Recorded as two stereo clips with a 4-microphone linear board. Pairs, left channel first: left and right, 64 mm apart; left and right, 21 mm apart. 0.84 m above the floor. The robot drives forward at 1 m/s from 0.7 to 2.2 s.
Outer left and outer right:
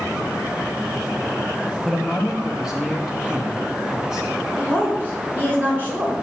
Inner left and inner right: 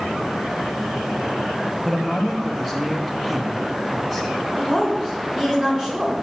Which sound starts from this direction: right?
A woman speaking, at 4.6 s.